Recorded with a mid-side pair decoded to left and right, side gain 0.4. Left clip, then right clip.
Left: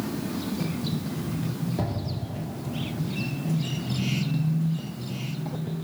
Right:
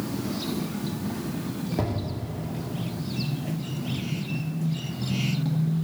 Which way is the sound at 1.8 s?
25° right.